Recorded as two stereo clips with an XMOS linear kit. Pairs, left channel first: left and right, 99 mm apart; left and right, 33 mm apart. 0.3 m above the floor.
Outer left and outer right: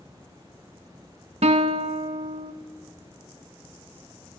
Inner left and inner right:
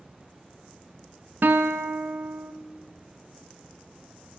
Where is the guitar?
85° right, 0.6 m.